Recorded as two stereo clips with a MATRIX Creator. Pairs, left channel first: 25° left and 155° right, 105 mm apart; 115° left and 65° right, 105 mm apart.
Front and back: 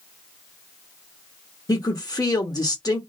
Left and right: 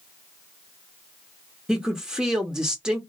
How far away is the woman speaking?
About 0.9 m.